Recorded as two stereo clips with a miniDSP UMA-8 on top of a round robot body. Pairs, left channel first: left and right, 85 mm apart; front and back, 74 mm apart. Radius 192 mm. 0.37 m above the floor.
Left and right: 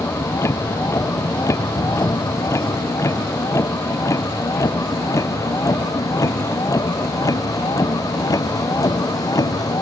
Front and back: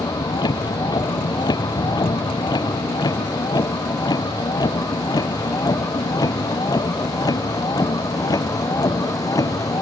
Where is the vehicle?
30° left; by 9.8 s 45° left.